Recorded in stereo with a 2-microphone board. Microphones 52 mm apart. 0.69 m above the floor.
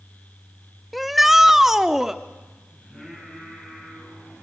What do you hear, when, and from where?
0.9 s a shout: centre (ahead or behind), 0.6 m; by 2.2 s 10° right (ahead or behind), 1.2 m
2.8 s singing: 5° left (ahead or behind), 8.5 m